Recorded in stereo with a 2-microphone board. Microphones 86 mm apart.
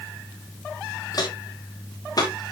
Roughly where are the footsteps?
Left.